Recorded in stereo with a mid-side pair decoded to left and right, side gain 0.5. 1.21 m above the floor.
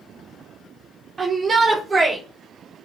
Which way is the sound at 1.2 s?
35° right.